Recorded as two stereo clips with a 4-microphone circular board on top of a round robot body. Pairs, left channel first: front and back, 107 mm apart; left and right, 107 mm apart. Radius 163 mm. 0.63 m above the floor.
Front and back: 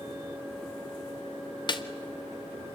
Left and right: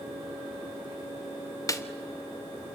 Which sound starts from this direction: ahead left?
A snare drum, at 1.7 s.